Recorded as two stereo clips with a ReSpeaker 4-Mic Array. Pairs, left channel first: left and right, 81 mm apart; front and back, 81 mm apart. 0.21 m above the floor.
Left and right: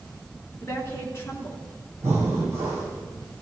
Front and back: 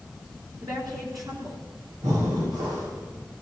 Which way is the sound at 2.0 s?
145° right.